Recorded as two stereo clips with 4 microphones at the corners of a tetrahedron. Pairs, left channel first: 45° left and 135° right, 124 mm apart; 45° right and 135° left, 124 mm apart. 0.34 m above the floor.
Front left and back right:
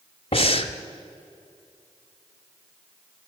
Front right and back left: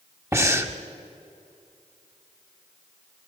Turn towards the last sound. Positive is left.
turn(degrees=75)